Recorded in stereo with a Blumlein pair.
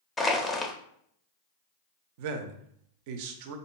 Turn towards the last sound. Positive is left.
turn(degrees=-50)